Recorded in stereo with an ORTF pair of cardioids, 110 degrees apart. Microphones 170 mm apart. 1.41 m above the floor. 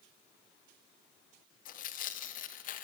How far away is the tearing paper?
About 0.6 m.